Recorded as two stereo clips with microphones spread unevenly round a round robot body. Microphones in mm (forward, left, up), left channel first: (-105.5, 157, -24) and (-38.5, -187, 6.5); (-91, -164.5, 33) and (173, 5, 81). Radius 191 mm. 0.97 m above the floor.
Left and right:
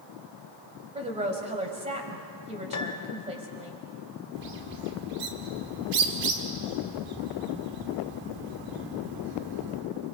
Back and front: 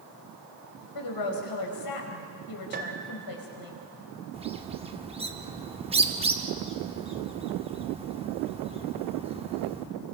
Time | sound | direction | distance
0.9 | a woman speaking | 150° right | 5 m
2.7 | a piano | 95° left | 1.2 m
4.3 | a bird | 40° right | 2 m